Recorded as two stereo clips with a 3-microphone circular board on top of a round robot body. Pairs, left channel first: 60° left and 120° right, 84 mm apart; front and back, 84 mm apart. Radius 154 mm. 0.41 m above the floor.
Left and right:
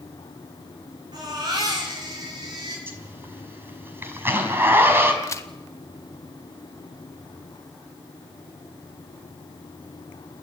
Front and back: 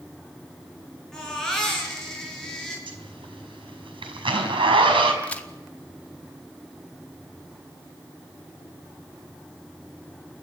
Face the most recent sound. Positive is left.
turn(degrees=65)